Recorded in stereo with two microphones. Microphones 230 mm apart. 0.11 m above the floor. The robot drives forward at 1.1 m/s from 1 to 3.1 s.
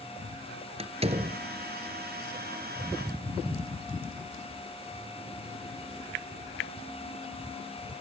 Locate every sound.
0.8 s a door slam: 25° right (ahead or behind), 1.6 m; by 1.4 s 30° right (ahead or behind), 1.4 m